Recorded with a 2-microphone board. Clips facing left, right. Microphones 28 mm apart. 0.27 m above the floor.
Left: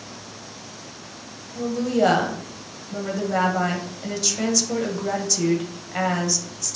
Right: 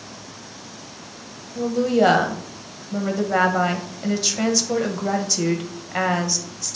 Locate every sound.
1.6 s a woman speaking: 15° right (ahead or behind), 1.0 m